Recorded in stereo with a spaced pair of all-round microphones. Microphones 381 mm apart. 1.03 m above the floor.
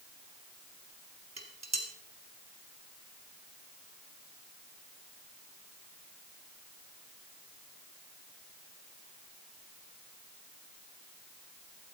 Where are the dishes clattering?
45° right (ahead or behind), 1.5 m.